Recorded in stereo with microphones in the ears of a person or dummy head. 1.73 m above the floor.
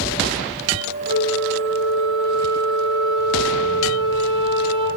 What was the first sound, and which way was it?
A flute, 65° right (ahead or behind).